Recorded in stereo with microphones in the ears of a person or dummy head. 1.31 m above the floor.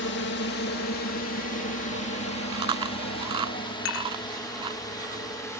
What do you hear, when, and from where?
0.0 s a drone: 55° left (ahead or behind); by 5.6 s 20° left (ahead or behind)
2.5 s chewing: 20° right (ahead or behind)
3.9 s dishes clattering: 75° left (ahead or behind)